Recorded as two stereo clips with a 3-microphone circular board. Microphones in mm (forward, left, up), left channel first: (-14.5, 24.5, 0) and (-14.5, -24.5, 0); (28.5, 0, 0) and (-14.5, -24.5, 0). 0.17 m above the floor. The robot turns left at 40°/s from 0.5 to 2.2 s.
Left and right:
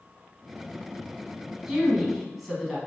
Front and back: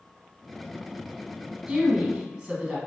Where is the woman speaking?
155° right, 1.3 m; by 2.8 s 175° right, 1.3 m.